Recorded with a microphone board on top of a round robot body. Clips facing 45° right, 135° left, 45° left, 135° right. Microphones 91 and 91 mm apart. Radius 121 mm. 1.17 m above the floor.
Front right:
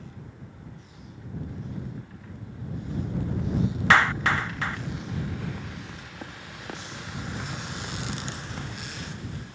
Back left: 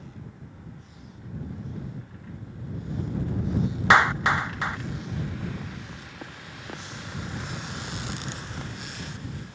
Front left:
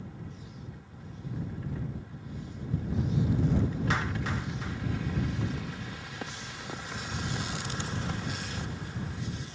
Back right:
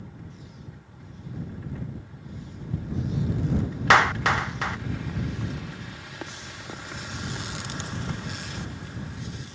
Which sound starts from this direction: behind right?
A clap, at 3.9 s.